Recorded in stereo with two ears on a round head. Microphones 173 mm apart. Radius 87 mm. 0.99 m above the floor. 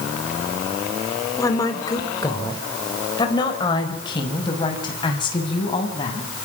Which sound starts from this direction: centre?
A woman speaking, at 1.4 s.